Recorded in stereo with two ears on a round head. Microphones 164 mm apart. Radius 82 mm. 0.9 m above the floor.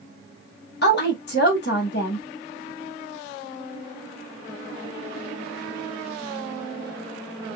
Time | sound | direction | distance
0.8 | a woman speaking | 60° left (ahead or behind) | 1.4 m